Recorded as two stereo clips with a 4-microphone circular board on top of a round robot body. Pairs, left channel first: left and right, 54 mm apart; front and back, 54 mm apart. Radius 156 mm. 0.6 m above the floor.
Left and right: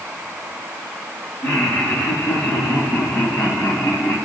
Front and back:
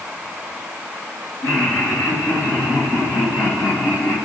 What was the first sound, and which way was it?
Laughter, 25° left.